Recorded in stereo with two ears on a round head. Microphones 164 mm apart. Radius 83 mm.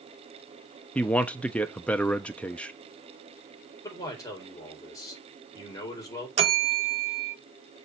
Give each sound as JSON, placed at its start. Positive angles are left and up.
{"t": 0.9, "sound": "a man speaking", "side_deg": 5, "distance_m": 0.7}
{"t": 3.8, "sound": "a man speaking", "side_deg": 20, "distance_m": 4.0}
{"t": 6.4, "sound": "a bell", "side_deg": -35, "distance_m": 1.0}